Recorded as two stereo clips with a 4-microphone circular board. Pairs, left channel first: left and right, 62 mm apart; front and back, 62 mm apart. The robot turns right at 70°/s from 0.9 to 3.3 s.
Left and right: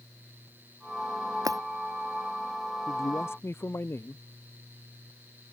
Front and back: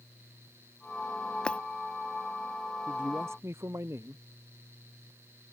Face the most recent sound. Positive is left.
turn(degrees=135)